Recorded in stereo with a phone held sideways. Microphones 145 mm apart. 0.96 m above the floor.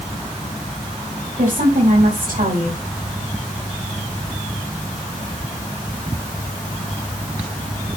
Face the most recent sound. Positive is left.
turn(degrees=-75)  # may be behind; listen again after turning